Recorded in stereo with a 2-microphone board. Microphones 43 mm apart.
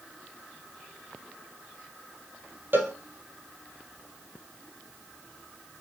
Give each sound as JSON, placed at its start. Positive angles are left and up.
{"t": 2.7, "sound": "a cowbell", "side_deg": -50, "distance_m": 2.5}